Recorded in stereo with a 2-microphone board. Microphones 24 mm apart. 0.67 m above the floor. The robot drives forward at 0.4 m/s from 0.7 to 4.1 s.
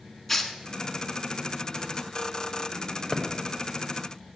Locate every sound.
0.3 s tearing paper: 5° left (ahead or behind), 1.0 m
3.1 s a thud: 5° right (ahead or behind), 1.3 m